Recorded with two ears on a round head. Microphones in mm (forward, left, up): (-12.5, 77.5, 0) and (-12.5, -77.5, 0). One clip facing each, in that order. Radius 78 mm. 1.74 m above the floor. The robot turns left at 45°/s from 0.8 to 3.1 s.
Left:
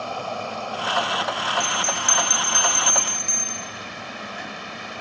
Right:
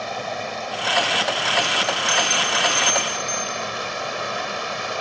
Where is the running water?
10° right; by 5.0 s 110° right.